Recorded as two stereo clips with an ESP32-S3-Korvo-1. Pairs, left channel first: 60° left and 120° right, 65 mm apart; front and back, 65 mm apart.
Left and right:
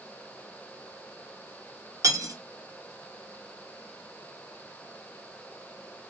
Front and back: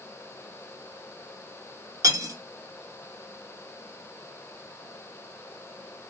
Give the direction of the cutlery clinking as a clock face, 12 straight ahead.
5 o'clock.